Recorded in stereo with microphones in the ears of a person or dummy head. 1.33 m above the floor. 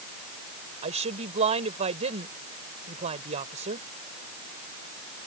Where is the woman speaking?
35° right (ahead or behind).